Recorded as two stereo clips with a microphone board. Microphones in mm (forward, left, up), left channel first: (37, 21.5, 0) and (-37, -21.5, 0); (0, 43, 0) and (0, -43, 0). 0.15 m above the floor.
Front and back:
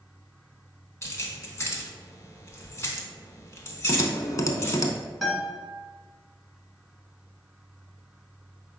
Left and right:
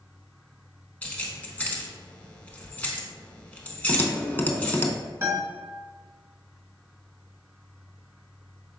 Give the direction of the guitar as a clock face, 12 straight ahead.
2 o'clock.